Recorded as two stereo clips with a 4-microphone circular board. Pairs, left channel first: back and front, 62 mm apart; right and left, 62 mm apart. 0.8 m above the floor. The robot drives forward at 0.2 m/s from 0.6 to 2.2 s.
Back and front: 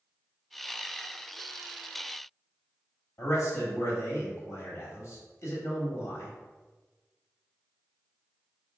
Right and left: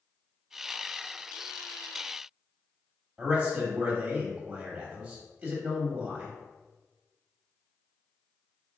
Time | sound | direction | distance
3.2 | a man speaking | 165° left | 1.0 m